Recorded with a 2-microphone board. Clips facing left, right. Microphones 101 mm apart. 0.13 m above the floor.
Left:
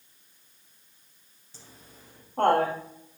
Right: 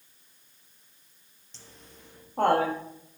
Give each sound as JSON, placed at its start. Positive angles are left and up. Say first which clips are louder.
{"t": 1.5, "sound": "laughter", "louder": "even", "side_deg": 10, "distance_m": 2.5}